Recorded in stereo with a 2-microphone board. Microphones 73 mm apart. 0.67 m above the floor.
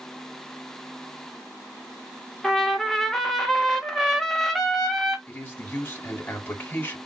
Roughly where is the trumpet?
Centre.